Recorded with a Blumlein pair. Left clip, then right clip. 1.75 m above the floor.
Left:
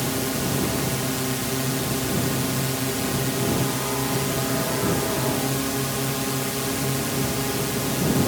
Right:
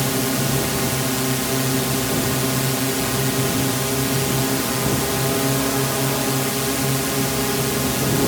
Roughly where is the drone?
Ahead.